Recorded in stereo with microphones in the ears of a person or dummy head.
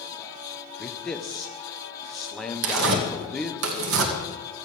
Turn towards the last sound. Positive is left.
turn(degrees=-70)  # may be behind; listen again after turning